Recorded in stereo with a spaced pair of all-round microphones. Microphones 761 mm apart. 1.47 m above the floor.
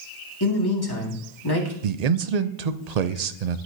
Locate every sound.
0.4 s a man speaking: 30° left (ahead or behind), 2.0 m
1.8 s a man speaking: 60° right (ahead or behind), 0.6 m